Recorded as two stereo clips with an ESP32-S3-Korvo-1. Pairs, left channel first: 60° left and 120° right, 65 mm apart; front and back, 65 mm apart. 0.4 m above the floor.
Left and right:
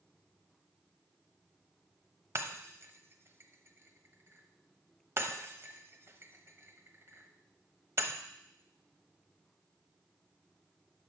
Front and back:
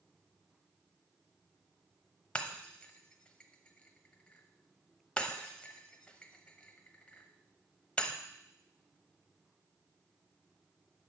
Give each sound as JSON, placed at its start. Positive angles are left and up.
{"t": 2.4, "sound": "breaking glass", "azimuth_deg": -75, "distance_m": 1.0}